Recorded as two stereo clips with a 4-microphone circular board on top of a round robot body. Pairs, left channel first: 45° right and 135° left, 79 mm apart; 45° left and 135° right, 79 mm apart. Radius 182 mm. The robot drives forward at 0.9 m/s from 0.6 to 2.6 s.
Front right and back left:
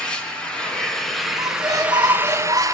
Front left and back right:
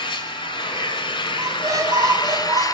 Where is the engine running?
35° left, 2.5 m; by 2.8 s 85° left, 1.3 m.